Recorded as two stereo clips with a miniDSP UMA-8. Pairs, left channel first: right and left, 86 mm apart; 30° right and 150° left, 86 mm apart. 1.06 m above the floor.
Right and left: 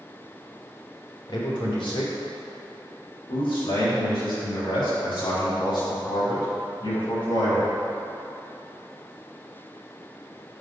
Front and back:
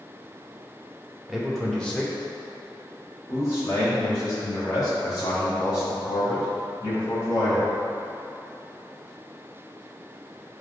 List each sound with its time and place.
1.3 s a man speaking: 120° right, 2 m; by 7.7 s 70° right, 7.5 m